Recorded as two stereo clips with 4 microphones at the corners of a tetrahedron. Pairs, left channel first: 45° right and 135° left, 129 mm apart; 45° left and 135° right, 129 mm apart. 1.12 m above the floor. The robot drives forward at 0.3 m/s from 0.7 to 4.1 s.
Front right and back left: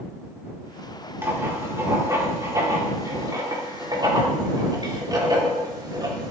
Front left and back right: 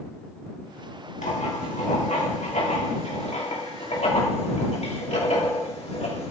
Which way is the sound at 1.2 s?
65° left.